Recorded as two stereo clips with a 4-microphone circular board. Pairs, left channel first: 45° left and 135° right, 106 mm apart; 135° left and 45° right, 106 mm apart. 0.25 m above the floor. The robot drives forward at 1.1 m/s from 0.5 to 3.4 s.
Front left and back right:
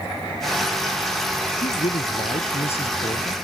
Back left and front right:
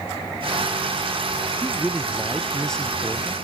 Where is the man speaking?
40° left; by 3.4 s 60° left.